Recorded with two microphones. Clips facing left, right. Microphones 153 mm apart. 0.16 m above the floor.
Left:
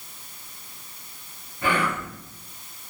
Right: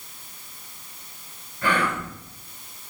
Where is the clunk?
No clunk in this recording.